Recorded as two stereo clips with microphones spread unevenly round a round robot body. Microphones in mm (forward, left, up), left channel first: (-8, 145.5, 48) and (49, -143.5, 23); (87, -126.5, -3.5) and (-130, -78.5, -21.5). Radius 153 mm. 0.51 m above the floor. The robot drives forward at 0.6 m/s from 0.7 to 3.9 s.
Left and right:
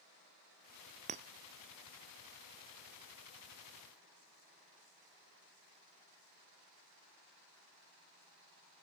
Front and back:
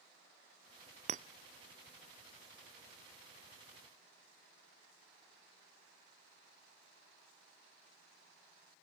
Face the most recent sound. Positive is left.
turn(degrees=-170)